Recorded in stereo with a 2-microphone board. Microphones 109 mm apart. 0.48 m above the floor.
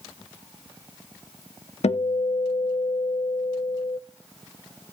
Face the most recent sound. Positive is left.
turn(degrees=80)